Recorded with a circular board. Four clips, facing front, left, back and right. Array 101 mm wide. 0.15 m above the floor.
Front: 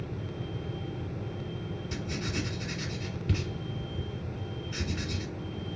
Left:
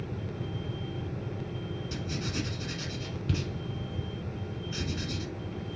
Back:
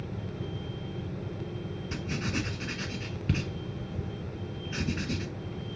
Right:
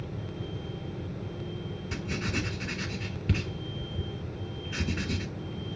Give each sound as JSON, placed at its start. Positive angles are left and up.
{"t": 1.9, "sound": "writing", "azimuth_deg": -130, "distance_m": 1.1}